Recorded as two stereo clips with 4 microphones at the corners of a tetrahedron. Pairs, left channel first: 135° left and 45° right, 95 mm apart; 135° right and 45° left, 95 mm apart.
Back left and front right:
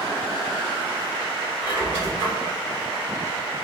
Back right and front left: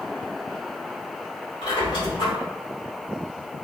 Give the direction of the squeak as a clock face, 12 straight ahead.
4 o'clock.